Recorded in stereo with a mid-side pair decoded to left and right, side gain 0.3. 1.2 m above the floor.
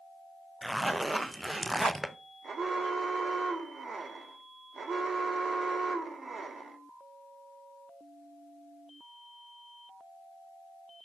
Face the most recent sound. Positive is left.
turn(degrees=-55)